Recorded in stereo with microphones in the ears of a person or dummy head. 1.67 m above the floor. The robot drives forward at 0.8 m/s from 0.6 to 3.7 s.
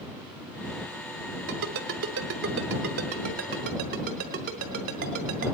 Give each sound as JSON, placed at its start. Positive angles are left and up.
{"t": 1.5, "sound": "a ringtone", "side_deg": -65, "distance_m": 2.0}